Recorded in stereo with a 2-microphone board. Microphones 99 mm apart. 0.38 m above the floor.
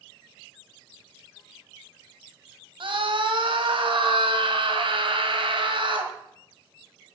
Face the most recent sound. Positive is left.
turn(degrees=-60)  # may be behind; listen again after turning